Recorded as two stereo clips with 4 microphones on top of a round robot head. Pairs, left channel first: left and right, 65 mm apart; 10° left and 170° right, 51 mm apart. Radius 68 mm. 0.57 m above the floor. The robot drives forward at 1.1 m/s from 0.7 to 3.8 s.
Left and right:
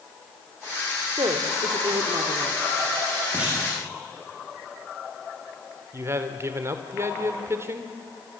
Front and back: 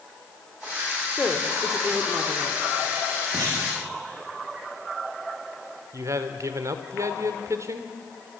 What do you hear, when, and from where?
1.2 s a woman speaking: 60° right, 1.9 m; by 2.6 s 115° right, 1.8 m
3.3 s a clunk: 160° right, 8.5 m; by 3.7 s 165° right, 9 m
5.9 s a man speaking: 140° right, 1.6 m